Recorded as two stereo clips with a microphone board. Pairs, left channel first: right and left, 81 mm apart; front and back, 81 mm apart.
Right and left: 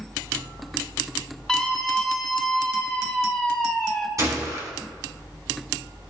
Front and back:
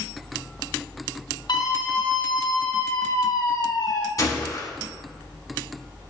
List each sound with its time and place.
1.5 s a scream: 5° left, 5.5 m
4.2 s a gunshot: 40° left, 1.7 m